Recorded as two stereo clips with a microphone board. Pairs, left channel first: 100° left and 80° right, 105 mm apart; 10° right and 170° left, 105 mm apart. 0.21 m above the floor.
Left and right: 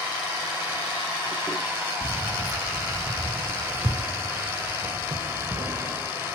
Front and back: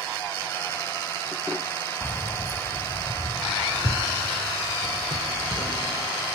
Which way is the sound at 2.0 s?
50° left.